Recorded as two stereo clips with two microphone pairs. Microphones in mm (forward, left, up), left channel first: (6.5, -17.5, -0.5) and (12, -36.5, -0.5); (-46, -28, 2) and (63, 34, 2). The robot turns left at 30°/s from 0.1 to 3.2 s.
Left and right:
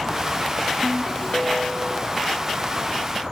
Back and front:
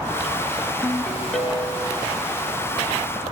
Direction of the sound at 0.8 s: 140° left.